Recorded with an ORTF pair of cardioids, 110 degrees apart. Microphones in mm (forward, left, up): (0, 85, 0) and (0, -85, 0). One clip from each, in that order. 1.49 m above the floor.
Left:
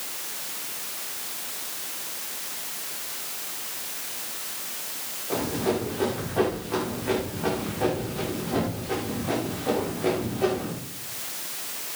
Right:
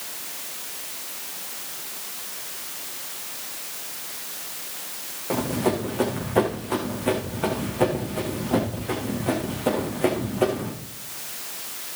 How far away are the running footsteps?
About 7.5 m.